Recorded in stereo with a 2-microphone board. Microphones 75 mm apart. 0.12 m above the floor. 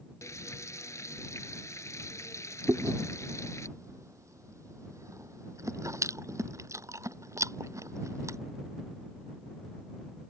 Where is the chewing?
45° right (ahead or behind).